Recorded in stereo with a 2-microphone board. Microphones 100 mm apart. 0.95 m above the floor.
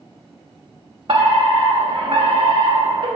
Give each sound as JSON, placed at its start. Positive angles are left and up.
{"t": 1.1, "sound": "a fire alarm", "side_deg": -60, "distance_m": 2.5}